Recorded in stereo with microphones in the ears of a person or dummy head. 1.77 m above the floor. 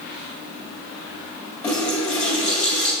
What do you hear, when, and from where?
1.6 s a running tap: 10° left (ahead or behind), 2.5 m